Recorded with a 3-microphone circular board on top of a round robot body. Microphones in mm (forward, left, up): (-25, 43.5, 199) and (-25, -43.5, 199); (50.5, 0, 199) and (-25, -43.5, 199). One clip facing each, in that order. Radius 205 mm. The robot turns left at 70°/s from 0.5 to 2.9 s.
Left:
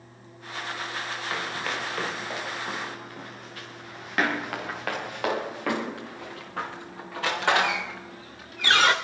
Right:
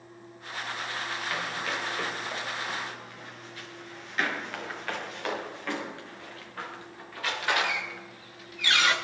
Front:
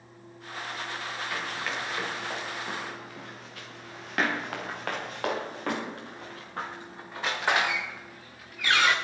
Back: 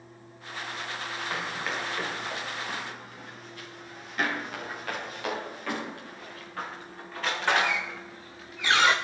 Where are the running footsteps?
150° left, 5 m; by 8.9 s 130° left, 3.5 m.